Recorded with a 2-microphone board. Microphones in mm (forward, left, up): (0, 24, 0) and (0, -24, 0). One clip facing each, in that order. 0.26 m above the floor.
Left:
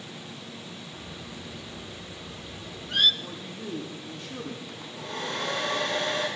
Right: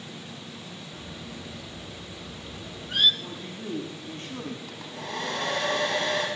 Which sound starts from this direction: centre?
A bird, at 0.9 s.